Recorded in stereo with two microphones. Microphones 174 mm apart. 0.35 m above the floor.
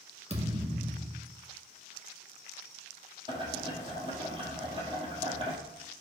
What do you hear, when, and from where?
0.3 s a thud: 40° right (ahead or behind), 1.7 m
3.3 s boiling: 30° right (ahead or behind), 2 m